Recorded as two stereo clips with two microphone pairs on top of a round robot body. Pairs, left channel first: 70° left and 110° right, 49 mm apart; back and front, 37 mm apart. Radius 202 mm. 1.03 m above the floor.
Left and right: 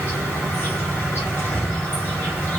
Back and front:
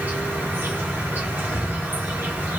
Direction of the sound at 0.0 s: 30° left.